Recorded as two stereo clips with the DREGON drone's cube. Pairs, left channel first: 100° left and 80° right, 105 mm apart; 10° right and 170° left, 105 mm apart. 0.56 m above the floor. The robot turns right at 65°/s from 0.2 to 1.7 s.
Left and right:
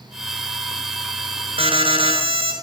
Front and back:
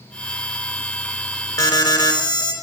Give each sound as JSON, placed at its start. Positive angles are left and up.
{"t": 1.6, "sound": "an alarm", "azimuth_deg": -70, "distance_m": 4.5}